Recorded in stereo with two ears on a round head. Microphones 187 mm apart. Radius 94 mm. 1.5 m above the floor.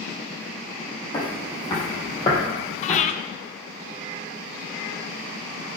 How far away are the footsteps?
About 4.5 m.